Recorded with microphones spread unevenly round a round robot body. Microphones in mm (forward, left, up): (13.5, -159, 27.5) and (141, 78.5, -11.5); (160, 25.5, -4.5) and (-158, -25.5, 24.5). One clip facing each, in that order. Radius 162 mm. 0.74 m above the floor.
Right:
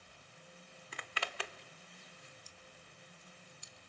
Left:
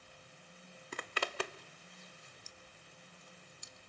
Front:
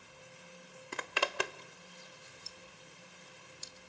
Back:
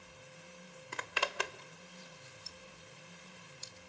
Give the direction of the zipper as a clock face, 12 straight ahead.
11 o'clock.